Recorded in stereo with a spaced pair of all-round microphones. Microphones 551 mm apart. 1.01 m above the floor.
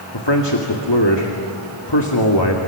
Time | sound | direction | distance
0.1 | a man speaking | 50° left (ahead or behind) | 2 m